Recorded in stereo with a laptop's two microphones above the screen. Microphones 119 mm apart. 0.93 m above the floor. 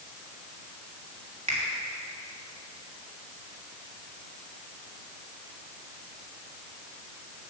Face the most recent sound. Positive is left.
turn(degrees=-70)  # may be behind; listen again after turning